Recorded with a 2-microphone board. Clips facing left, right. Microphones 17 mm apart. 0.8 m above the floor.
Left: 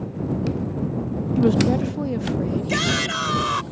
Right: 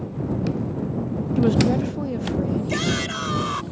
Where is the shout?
15° left (ahead or behind).